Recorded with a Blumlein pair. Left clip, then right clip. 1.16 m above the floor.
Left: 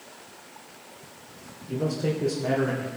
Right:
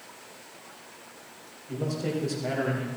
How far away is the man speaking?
About 3 m.